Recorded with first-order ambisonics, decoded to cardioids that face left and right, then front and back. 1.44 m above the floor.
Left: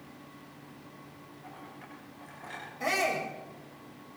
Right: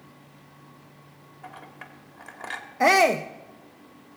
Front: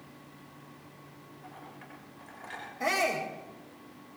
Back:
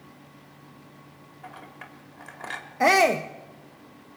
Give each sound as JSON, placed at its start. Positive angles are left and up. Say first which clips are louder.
{"t": 1.4, "sound": "a clink", "louder": "right 6 dB, back 6 dB", "azimuth_deg": -130, "distance_m": 3.0}
{"t": 2.8, "sound": "a shout", "louder": "right 11 dB, back 10 dB", "azimuth_deg": -130, "distance_m": 0.8}